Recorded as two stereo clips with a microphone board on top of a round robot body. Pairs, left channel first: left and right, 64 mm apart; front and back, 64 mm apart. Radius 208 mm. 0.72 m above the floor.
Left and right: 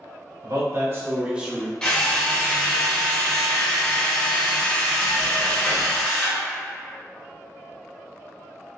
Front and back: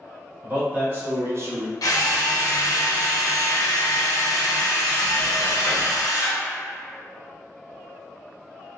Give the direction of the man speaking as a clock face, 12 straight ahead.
4 o'clock.